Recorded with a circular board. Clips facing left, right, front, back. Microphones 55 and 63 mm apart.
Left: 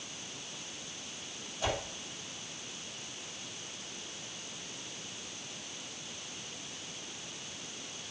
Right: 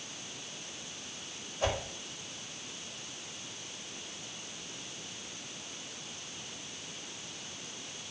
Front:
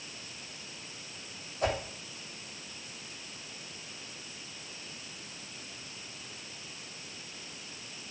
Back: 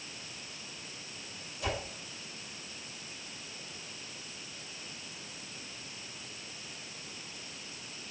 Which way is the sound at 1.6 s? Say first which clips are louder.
Right 2 dB, front 5 dB; 45° right.